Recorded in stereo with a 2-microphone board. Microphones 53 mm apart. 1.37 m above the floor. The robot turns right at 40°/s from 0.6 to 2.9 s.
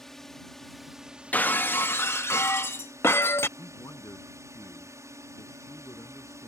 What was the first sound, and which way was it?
A drone, 175° left.